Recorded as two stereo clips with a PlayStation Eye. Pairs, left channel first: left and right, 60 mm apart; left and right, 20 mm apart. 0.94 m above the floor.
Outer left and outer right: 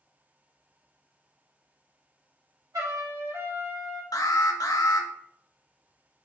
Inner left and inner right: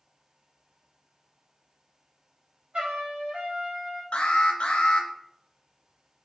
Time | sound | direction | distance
2.7 | a trumpet | 65° right (ahead or behind) | 1.5 m
4.1 | an alarm | 85° left | 0.6 m